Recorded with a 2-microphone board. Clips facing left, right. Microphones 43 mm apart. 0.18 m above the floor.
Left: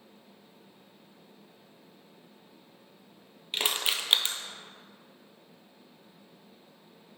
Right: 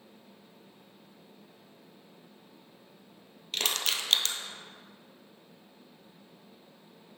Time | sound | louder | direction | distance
3.5 | crushing | left 1 dB | 20° left (ahead or behind) | 0.7 m